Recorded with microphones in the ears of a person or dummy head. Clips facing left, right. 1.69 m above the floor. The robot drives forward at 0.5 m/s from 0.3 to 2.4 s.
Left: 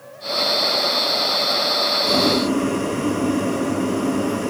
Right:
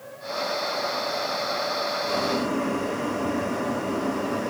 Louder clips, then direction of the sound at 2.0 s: Left 8 dB; 50° left (ahead or behind).